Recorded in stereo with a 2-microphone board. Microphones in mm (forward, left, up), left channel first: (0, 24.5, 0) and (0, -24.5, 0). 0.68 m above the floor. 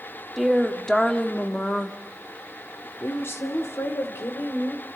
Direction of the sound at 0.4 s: Centre (ahead or behind).